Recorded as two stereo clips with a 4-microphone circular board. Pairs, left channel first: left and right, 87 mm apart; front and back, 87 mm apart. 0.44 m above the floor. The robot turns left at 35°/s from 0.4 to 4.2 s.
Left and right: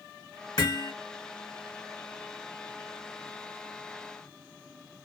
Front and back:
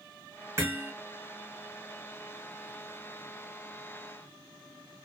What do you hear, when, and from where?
0.6 s hammering: 125° left, 0.9 m; by 0.9 s 110° left, 0.9 m